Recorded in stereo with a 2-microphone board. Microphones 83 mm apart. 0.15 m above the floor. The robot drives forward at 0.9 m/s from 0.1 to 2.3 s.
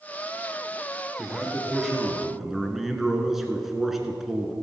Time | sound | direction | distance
1.2 | a man speaking | centre (ahead or behind) | 2.5 m